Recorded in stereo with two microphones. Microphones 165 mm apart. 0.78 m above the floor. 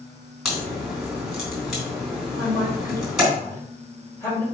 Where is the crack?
5° right (ahead or behind), 3.5 m.